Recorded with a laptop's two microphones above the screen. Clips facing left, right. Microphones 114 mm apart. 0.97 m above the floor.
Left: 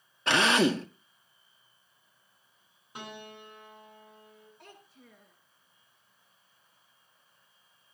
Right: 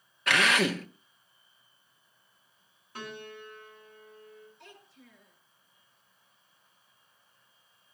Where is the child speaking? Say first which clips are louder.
Even; 50° left (ahead or behind), 10 m.